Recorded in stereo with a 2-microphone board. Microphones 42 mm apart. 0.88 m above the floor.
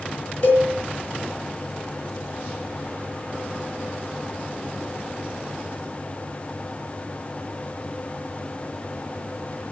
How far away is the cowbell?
About 6.5 m.